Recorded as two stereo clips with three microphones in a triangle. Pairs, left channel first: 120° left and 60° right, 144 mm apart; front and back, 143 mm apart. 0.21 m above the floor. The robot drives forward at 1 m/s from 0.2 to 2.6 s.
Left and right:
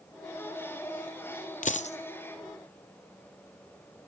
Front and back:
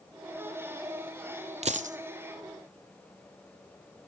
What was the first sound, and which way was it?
A dropped coin, 140° left.